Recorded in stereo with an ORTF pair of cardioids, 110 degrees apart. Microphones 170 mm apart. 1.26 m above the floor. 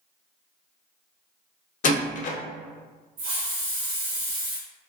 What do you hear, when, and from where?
1.8 s a door slam: 50° left, 0.6 m
3.2 s a hiss: 60° right, 1.4 m